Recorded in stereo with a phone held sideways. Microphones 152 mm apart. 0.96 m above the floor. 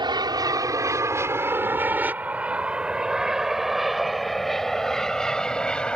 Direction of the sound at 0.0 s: 30° right (ahead or behind).